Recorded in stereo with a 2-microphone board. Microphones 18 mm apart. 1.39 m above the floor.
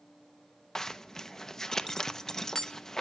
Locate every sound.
0.8 s a zipper: 25° left (ahead or behind), 0.7 m